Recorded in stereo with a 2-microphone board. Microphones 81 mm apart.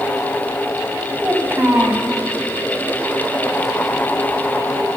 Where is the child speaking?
25° right (ahead or behind), 3.5 m.